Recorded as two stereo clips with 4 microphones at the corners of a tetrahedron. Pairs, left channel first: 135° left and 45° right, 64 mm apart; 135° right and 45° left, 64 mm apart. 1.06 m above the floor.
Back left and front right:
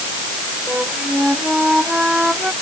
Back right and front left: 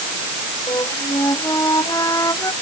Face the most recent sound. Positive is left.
turn(degrees=-120)